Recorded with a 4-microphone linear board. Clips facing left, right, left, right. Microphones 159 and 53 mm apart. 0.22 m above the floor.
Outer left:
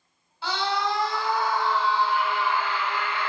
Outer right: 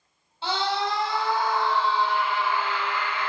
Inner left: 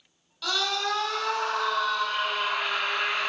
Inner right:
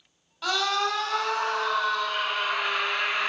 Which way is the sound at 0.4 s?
25° right (ahead or behind).